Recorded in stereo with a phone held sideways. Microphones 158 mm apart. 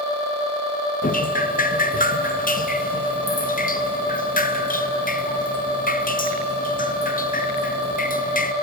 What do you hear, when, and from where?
1.0 s dripping: 60° left (ahead or behind), 0.7 m